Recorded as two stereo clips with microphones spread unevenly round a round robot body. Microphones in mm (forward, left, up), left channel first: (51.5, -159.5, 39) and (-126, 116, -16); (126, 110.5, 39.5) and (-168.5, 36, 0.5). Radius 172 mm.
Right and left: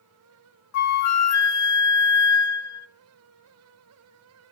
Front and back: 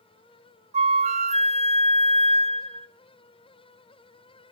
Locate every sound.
0.7 s a flute: 100° right, 0.9 m